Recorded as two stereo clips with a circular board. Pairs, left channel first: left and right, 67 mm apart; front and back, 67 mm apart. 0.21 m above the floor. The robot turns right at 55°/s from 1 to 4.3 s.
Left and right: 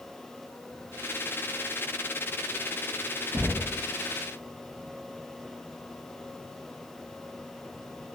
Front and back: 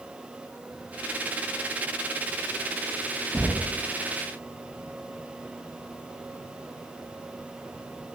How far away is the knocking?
About 1.0 m.